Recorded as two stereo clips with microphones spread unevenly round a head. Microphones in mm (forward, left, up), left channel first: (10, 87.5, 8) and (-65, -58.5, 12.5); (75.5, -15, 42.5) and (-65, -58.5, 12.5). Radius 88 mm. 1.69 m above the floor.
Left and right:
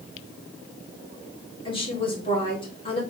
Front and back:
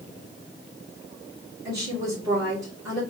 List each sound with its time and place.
1.6 s a woman speaking: 125° left, 2 m